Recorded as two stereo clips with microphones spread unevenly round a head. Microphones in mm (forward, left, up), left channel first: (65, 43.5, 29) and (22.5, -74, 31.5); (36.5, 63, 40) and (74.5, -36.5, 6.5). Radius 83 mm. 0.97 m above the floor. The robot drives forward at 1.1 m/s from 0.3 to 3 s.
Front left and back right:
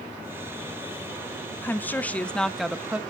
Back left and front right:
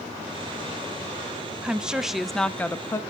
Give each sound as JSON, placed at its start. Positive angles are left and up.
{"t": 1.6, "sound": "a woman speaking", "azimuth_deg": 0, "distance_m": 1.4}